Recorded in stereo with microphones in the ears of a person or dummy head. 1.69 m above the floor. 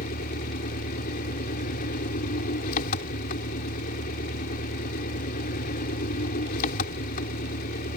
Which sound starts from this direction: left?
An engine running, at 0.0 s.